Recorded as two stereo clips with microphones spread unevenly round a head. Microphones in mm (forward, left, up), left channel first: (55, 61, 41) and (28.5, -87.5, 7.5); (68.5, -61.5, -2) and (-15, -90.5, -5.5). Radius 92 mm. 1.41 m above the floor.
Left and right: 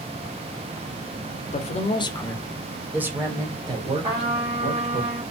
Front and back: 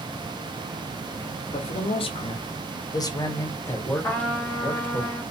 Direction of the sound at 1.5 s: 35° left.